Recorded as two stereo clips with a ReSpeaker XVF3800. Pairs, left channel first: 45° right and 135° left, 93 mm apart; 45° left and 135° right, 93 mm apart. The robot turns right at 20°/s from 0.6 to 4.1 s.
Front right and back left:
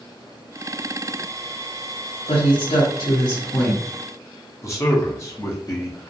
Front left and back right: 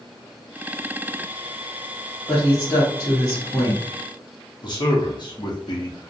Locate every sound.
2.3 s a woman speaking: 35° right, 0.9 m; by 3.8 s straight ahead, 0.9 m
4.6 s a man speaking: 10° left, 0.8 m